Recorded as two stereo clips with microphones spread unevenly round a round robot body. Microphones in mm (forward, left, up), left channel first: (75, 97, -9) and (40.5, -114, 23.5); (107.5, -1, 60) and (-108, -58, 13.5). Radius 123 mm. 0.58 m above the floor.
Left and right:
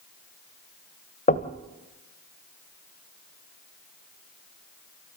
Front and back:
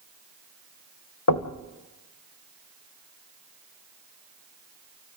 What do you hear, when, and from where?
1.3 s knocking: 30° left, 1.6 m